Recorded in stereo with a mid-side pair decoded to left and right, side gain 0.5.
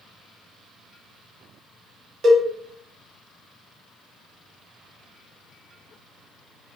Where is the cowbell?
60° right, 0.8 m.